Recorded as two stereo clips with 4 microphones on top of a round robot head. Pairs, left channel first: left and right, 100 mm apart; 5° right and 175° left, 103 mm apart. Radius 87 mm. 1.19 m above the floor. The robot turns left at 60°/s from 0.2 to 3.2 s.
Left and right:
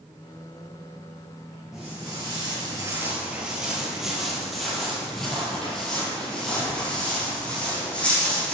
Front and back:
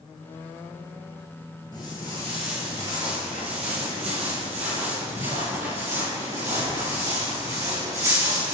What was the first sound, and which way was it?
Footsteps, 10° right.